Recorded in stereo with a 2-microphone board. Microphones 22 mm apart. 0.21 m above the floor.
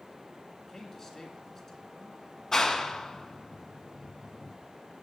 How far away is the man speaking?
About 2.5 m.